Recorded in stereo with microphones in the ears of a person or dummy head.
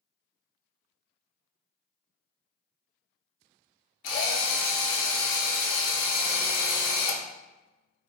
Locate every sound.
4.0 s a drill: 60° left (ahead or behind), 0.8 m